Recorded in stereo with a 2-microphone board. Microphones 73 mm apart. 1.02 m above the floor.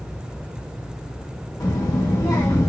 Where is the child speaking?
55° left (ahead or behind), 0.7 m.